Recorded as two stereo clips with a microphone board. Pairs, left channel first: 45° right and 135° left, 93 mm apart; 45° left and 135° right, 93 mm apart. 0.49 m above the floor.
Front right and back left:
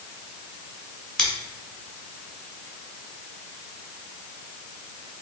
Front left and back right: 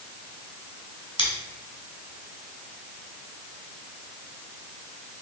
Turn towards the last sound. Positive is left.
turn(degrees=40)